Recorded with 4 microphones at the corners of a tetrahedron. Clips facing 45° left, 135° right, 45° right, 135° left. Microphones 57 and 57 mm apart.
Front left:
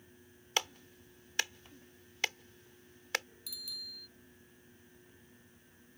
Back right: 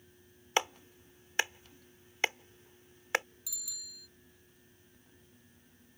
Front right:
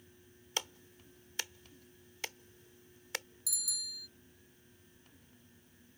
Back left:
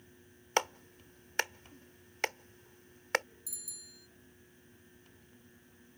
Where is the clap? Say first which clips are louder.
Back right 5 dB, back left 10 dB; 160° left.